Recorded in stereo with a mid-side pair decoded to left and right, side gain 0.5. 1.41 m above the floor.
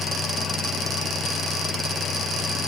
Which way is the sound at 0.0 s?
50° left.